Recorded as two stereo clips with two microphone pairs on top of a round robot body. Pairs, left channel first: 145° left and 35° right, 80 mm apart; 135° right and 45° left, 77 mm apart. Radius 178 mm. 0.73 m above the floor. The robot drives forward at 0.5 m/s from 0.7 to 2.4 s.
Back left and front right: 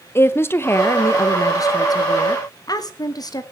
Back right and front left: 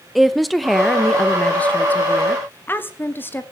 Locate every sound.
0.1 s a woman speaking: 145° left, 1.0 m; by 3.4 s 170° left, 1.5 m